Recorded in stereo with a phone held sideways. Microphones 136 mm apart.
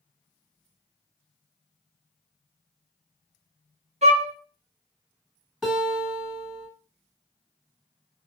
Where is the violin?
55° right (ahead or behind), 0.7 m.